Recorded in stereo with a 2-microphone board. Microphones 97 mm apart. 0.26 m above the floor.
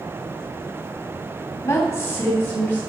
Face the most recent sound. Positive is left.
turn(degrees=25)  # may be behind; listen again after turning